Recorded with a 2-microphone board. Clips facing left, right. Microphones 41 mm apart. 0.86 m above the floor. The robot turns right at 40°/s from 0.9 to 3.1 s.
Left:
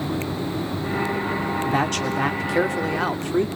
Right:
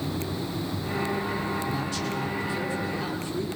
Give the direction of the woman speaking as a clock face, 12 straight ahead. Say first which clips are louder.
Left 7 dB; 10 o'clock.